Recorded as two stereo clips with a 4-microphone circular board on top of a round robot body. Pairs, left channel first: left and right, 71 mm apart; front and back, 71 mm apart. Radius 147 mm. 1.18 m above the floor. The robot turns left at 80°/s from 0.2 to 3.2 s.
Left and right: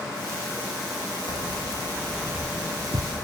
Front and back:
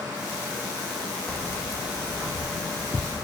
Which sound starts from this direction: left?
Keys jangling, at 1.3 s.